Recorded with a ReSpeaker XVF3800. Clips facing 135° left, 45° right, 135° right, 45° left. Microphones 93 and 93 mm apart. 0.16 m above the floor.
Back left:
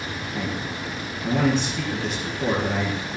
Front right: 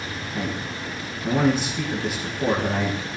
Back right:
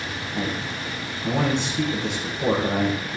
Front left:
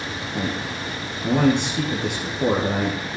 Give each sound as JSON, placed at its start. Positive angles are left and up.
{"t": 0.3, "sound": "a man speaking", "azimuth_deg": 40, "distance_m": 3.0}